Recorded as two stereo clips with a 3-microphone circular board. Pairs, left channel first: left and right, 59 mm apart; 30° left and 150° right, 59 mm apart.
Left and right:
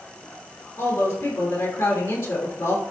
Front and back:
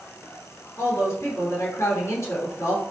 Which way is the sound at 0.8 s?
75° left.